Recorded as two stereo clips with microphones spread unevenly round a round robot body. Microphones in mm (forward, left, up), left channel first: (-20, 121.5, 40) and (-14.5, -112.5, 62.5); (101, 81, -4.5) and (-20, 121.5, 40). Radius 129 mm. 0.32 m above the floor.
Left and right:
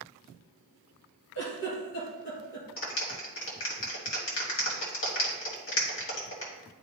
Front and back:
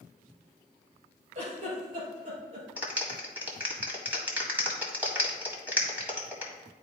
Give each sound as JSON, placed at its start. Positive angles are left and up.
{"t": 1.4, "sound": "a giggle", "azimuth_deg": 130, "distance_m": 3.0}
{"t": 2.8, "sound": "a clap", "azimuth_deg": 75, "distance_m": 1.9}